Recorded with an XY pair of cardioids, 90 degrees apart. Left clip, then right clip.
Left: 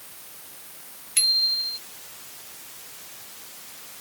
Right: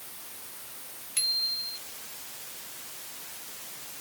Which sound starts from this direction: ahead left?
A bicycle bell, at 1.2 s.